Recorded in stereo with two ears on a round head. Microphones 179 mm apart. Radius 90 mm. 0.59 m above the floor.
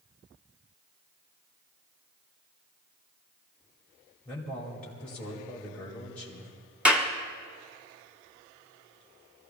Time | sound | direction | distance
4.2 | a man speaking | 5° left (ahead or behind) | 2.5 m
6.8 | a clap | 5° right (ahead or behind) | 1.4 m